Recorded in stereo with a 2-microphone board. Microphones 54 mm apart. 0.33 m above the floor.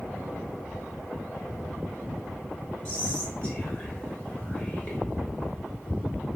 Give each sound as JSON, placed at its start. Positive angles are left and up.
{"t": 2.9, "sound": "whispering", "side_deg": 20, "distance_m": 0.9}